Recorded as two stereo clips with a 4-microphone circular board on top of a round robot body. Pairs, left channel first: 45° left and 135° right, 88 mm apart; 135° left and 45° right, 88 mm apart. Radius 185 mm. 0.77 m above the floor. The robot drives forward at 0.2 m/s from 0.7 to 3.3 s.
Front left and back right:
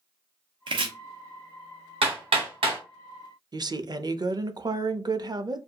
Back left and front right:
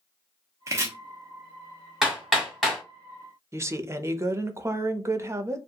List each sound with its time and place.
0.7 s chopping: 105° right, 0.6 m; by 0.9 s 110° right, 0.6 m
2.0 s hammering: 135° right, 1.4 m; by 2.8 s 140° right, 1.5 m
3.5 s a woman speaking: 100° right, 0.6 m